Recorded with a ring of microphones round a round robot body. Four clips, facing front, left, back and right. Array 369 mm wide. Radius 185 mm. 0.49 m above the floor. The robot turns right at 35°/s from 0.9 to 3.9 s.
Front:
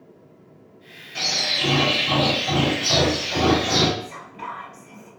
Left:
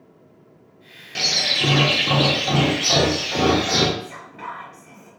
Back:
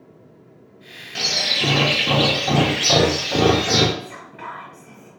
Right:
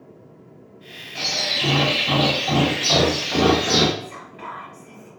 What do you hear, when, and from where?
1.1 s a bird: 120° left, 0.5 m; by 3.9 s 145° right, 0.5 m
4.0 s whispering: 170° left, 1.5 m